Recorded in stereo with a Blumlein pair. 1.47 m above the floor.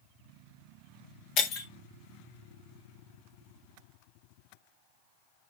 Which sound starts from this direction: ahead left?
Breaking glass, at 1.4 s.